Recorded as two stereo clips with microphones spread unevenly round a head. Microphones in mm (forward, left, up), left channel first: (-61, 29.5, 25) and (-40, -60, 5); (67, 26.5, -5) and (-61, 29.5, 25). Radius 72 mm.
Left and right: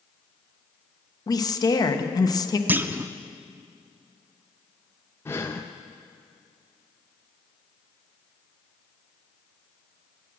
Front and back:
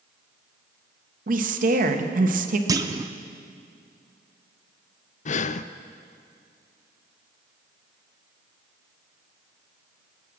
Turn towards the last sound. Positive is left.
turn(degrees=30)